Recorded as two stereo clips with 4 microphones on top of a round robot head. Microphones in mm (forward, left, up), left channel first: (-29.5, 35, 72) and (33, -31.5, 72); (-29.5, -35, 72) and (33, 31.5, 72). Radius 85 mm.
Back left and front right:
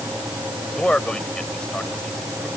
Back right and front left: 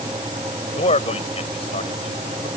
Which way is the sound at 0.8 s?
145° right.